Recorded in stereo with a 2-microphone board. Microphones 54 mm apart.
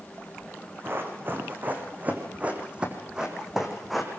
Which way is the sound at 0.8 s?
45° right (ahead or behind).